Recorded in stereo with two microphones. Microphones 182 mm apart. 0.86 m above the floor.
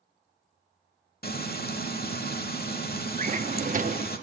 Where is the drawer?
45° right (ahead or behind), 0.7 m.